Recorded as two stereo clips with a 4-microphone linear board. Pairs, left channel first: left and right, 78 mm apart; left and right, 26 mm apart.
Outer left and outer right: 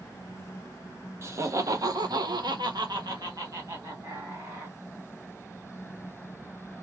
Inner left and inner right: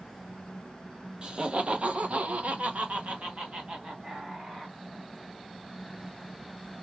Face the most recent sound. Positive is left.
turn(degrees=-35)  # may be behind; listen again after turning